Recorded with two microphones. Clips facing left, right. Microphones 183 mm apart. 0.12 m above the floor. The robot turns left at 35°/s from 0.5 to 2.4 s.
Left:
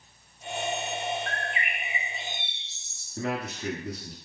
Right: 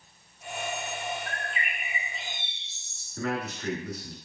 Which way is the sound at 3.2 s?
25° left (ahead or behind).